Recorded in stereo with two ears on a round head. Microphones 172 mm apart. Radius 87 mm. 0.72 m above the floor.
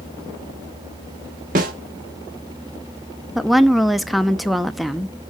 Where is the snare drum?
45° right (ahead or behind), 1.3 m.